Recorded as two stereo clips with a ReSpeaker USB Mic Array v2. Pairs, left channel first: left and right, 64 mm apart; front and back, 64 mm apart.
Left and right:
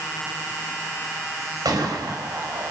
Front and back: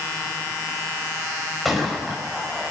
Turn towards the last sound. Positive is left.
turn(degrees=-90)